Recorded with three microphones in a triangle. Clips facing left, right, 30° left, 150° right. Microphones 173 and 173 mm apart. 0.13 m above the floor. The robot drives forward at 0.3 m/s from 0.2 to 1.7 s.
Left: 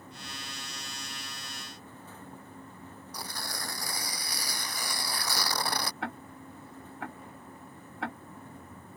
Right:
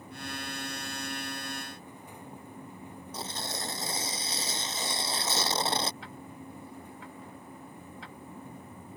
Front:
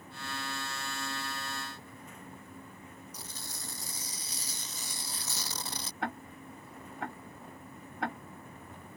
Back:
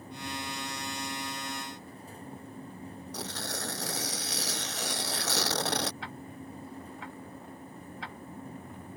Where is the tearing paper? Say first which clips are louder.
Right 3 dB, back 10 dB; 155° right.